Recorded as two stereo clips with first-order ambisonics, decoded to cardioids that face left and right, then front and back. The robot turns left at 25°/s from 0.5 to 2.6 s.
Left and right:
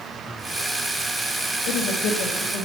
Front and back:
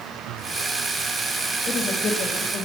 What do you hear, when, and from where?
1.6 s a woman speaking: 75° left, 2 m; by 2.7 s 50° left, 2 m